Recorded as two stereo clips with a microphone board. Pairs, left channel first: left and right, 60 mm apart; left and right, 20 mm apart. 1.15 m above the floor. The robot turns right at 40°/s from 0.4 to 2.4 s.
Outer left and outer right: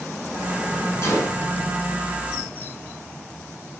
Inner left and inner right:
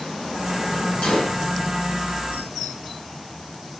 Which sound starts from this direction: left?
A gunshot, at 1.0 s.